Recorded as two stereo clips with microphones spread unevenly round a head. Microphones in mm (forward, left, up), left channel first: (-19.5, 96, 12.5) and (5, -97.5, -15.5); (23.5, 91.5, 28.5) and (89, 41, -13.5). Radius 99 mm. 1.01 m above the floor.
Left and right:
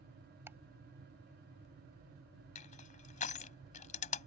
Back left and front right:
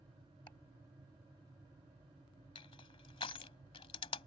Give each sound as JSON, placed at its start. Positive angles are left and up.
{"t": 0.5, "sound": "ticking", "azimuth_deg": -165}
{"t": 2.5, "sound": "crushing", "azimuth_deg": 150}